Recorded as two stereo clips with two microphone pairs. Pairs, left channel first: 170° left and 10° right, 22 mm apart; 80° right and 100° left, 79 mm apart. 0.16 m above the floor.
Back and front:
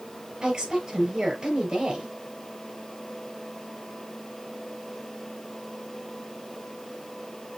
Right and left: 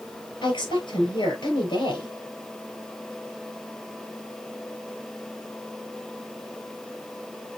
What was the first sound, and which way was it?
A woman speaking, 65° right.